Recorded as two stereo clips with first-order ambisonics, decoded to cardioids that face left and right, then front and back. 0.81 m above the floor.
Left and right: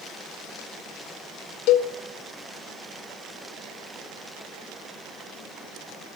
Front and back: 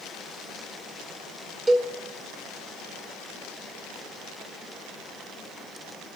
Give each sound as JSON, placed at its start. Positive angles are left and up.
{"t": 1.7, "sound": "a cowbell", "azimuth_deg": 105, "distance_m": 1.8}